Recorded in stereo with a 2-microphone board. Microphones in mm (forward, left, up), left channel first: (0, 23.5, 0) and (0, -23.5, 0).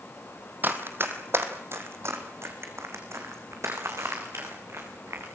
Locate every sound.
0.6 s running footsteps: 45° right (ahead or behind), 2.5 m; by 5.3 s 70° right (ahead or behind), 7 m